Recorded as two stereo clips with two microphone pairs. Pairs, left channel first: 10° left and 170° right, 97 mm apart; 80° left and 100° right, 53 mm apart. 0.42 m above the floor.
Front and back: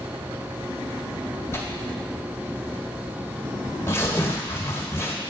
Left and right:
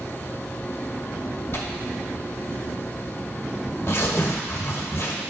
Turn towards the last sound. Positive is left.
turn(degrees=60)